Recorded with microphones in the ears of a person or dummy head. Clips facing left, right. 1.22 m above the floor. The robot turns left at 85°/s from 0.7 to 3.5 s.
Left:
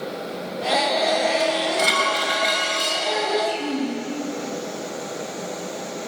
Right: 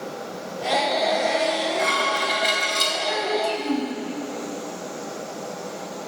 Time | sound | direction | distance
1.4 | dishes clattering | 90° left | 4.5 m
3.0 | a child speaking | 30° right | 5 m